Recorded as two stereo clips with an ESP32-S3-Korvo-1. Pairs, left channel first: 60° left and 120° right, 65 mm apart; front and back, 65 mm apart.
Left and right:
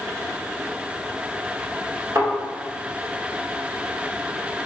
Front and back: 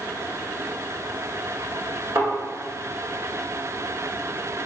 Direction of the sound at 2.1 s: 160° right.